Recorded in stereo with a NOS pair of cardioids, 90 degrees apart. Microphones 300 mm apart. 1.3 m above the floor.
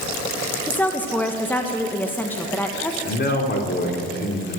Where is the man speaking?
35° left, 3.5 m.